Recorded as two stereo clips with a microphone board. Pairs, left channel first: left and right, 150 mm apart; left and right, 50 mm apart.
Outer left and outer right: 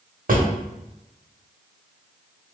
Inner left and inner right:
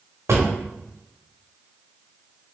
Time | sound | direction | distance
0.3 | a drawer | 70° right (ahead or behind) | 0.8 m